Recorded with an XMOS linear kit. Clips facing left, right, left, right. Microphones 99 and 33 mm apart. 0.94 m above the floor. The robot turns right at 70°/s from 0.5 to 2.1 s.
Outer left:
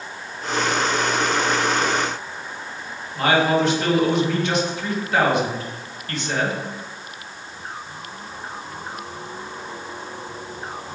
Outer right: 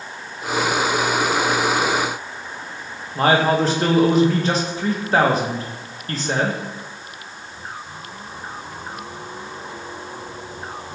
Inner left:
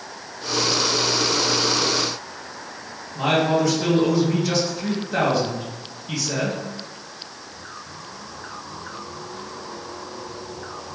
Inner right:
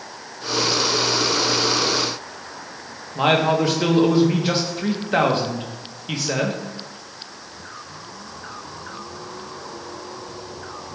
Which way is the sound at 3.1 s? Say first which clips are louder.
Outer right 2 dB, inner right 2 dB; 35° right (ahead or behind).